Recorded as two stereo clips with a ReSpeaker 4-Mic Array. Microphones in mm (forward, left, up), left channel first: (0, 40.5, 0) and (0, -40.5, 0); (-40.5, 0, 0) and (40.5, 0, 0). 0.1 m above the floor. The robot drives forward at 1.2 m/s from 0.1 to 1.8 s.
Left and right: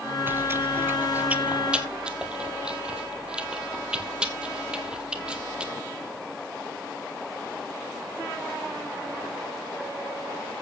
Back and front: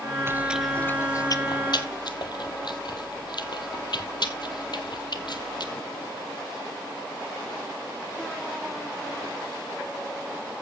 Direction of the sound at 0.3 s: 40° right.